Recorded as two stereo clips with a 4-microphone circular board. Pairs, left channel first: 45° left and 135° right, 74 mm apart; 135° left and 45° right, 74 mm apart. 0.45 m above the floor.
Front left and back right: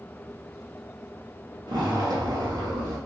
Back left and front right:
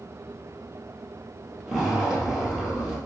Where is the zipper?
125° right, 1.9 m.